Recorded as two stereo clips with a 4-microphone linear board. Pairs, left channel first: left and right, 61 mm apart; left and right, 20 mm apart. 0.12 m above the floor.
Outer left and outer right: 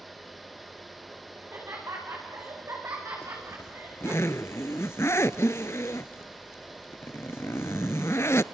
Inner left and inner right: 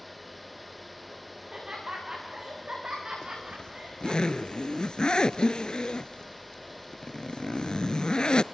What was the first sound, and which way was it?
Laughter, 45° right (ahead or behind).